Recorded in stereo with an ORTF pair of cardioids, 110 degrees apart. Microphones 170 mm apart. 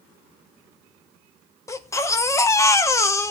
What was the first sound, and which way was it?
A baby crying, 20° left.